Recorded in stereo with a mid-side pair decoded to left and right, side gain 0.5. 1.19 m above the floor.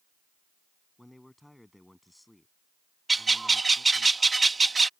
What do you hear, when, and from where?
1.0 s a man speaking: 5° left
3.1 s a bird: 20° right